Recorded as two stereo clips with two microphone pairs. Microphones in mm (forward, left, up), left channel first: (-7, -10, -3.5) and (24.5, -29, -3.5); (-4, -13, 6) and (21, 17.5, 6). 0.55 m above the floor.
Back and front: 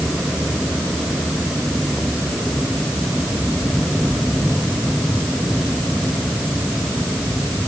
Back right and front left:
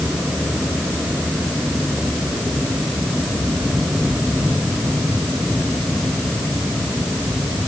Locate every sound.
Only background noise.